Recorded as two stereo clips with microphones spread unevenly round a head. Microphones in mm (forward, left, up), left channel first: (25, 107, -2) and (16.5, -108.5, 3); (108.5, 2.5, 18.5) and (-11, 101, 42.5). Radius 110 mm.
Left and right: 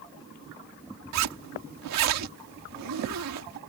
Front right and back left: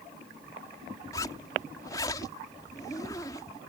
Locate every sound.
1.1 s a zipper: 115° right